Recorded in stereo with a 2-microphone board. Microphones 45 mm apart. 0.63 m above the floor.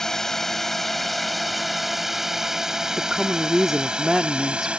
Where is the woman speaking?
5° right (ahead or behind).